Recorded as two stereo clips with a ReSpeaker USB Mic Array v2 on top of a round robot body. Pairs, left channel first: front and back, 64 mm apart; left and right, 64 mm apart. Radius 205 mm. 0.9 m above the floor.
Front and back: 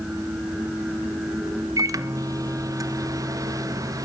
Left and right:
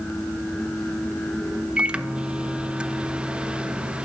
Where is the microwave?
160° right, 1.1 m.